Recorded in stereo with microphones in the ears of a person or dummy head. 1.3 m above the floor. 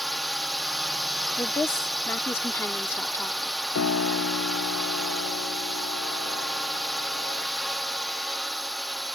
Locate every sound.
0.0 s a drone: centre (ahead or behind)
1.4 s a woman speaking: 15° left (ahead or behind)
3.8 s a piano: 70° left (ahead or behind)